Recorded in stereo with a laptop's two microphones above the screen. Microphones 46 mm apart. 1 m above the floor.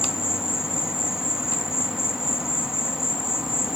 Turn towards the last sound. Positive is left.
turn(degrees=-10)  # may be behind; listen again after turning